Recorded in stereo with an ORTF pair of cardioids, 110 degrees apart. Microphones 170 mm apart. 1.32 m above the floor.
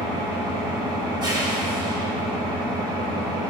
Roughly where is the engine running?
Ahead right.